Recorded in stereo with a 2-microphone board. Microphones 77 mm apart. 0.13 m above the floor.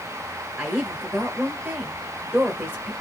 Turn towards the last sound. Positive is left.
turn(degrees=-20)  # may be behind; listen again after turning